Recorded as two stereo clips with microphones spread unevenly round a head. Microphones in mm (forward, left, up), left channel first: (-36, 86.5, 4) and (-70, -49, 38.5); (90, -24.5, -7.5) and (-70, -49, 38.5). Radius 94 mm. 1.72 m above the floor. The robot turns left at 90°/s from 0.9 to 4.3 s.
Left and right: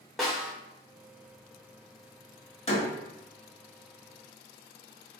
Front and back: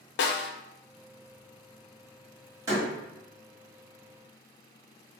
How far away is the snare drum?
About 0.6 m.